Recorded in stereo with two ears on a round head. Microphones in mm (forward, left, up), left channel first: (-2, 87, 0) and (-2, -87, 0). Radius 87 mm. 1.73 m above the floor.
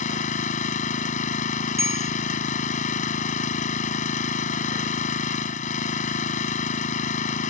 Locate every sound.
0.0 s an engine running: 40° left (ahead or behind)
1.8 s a bell: 15° right (ahead or behind)